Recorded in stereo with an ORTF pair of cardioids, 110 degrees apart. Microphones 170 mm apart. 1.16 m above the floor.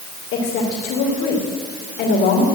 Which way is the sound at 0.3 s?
65° left.